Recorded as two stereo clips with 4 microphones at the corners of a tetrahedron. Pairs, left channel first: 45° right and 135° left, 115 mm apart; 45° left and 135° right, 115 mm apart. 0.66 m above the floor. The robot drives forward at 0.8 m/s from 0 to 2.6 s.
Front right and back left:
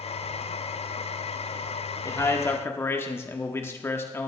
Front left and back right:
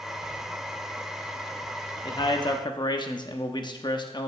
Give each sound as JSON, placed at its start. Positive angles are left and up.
{"t": 2.0, "sound": "a man speaking", "azimuth_deg": 10, "distance_m": 1.4}